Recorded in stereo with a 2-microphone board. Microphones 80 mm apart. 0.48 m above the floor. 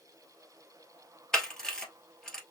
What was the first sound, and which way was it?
A camera shutter, 5° left (ahead or behind).